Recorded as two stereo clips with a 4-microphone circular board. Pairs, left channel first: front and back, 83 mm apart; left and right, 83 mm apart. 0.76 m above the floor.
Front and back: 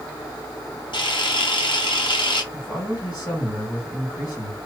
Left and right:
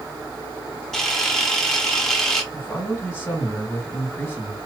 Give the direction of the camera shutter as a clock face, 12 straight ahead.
12 o'clock.